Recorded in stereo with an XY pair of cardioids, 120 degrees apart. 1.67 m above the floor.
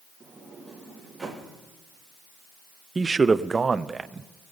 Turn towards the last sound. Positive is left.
turn(degrees=-25)